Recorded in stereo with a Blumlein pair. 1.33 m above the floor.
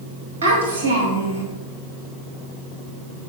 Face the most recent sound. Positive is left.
turn(degrees=-70)